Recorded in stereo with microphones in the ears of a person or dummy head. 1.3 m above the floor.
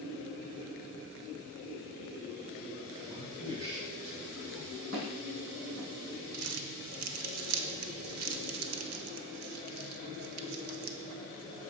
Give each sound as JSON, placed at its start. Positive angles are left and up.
{"t": 3.1, "sound": "a man speaking", "side_deg": -20, "distance_m": 0.8}
{"t": 4.9, "sound": "footsteps", "side_deg": -55, "distance_m": 3.5}
{"t": 6.3, "sound": "crumpling", "side_deg": -85, "distance_m": 0.7}